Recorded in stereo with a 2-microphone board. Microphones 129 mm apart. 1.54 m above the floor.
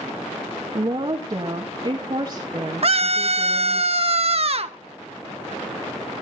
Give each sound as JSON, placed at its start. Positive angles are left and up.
{"t": 0.7, "sound": "a woman speaking", "side_deg": -45, "distance_m": 2.0}
{"t": 2.8, "sound": "a scream", "side_deg": -50, "distance_m": 1.4}